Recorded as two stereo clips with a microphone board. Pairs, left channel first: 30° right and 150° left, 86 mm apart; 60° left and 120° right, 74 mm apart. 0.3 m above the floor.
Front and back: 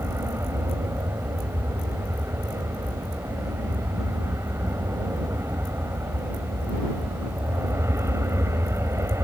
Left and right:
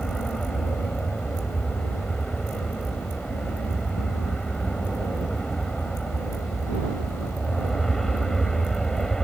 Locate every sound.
0.0 s an aircraft: 140° left